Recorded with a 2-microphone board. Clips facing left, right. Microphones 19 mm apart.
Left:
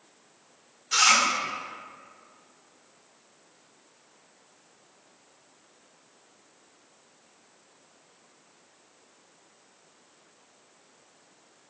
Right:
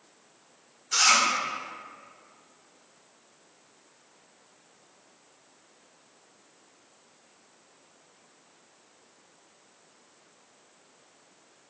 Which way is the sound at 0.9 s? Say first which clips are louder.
Left 1 dB; 40° left (ahead or behind).